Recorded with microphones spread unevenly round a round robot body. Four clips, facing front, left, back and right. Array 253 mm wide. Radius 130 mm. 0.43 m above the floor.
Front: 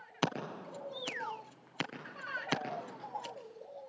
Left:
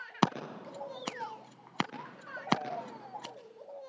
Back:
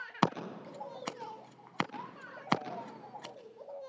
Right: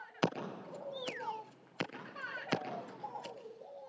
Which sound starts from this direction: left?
Scissors, at 0.2 s.